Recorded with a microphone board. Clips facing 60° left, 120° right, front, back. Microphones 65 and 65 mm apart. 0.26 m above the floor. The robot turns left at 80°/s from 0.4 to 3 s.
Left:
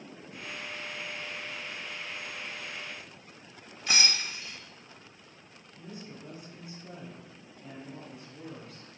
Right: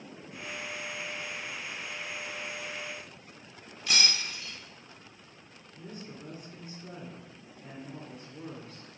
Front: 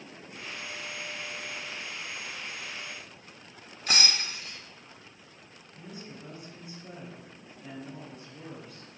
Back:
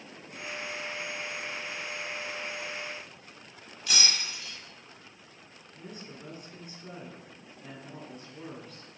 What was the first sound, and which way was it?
Breaking glass, 20° left.